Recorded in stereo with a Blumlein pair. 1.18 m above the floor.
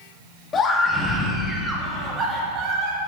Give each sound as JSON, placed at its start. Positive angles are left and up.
{"t": 0.5, "sound": "a scream", "azimuth_deg": 20, "distance_m": 2.5}